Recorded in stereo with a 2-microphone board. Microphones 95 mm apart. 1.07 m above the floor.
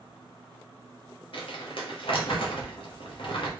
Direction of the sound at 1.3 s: 65° left (ahead or behind).